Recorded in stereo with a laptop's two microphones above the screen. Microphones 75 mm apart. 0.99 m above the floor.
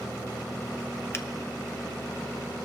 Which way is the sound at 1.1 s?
30° left (ahead or behind).